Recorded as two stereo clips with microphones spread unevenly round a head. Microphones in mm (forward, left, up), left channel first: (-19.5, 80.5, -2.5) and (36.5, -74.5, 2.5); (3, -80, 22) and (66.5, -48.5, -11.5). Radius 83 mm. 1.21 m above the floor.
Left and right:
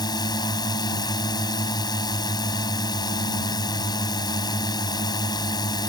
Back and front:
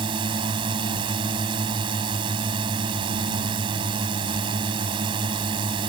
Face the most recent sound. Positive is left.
turn(degrees=45)